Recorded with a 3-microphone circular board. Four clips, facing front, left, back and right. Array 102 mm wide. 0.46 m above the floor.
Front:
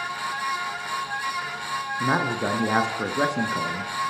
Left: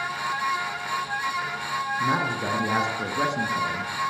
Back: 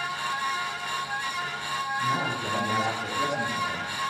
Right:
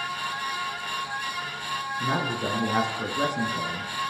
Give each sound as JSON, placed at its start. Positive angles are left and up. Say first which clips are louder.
{"t": 2.0, "sound": "a man speaking", "louder": "left 1 dB, front 7 dB", "azimuth_deg": 5, "distance_m": 6.0}